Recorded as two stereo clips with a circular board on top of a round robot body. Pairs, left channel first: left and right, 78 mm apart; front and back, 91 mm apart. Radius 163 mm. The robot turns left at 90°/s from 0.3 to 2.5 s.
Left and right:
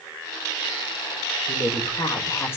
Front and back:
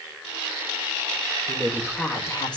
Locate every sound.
1.5 s a woman speaking: 125° left, 1.8 m; by 2.6 s 35° left, 1.8 m